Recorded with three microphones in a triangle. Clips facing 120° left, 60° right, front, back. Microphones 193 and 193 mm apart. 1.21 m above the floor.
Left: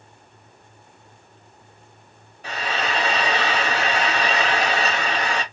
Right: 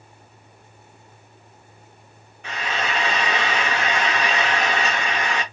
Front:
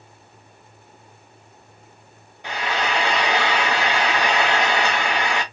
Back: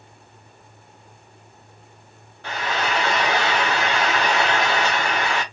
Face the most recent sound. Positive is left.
turn(degrees=70)